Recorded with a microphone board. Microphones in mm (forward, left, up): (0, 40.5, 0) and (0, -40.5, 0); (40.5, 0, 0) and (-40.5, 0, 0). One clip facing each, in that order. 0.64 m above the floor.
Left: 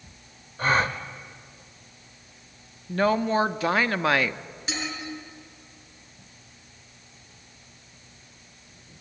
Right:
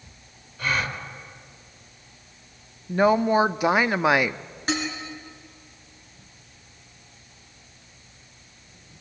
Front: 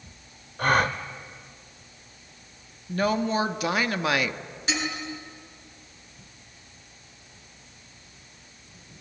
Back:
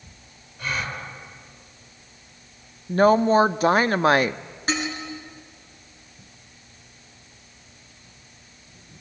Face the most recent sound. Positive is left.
turn(degrees=-130)